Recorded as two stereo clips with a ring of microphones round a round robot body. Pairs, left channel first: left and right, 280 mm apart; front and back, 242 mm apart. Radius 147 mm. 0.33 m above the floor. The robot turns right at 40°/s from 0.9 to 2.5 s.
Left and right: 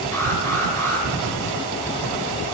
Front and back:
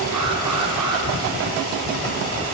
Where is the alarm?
170° left, 5 m; by 1.1 s straight behind, 5 m.